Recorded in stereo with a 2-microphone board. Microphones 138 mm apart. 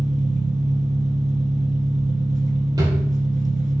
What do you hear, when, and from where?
0.0 s an engine running: 70° right (ahead or behind), 1.8 m
2.8 s a drawer: 30° right (ahead or behind), 3 m